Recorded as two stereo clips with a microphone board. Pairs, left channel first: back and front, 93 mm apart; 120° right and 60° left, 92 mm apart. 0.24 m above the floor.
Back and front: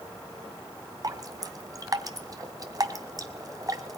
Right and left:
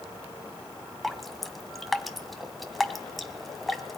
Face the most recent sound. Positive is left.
turn(degrees=-30)